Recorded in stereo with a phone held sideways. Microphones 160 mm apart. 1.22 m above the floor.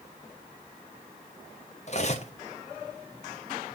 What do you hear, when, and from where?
1.9 s cutlery clinking: 45° left (ahead or behind), 0.9 m